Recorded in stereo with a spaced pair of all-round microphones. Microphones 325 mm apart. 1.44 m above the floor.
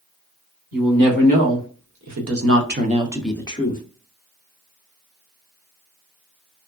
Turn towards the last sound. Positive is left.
turn(degrees=30)  # may be behind; listen again after turning